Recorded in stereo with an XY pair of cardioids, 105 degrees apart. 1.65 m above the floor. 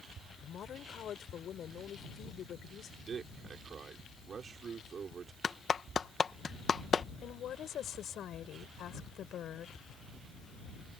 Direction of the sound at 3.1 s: 50° right.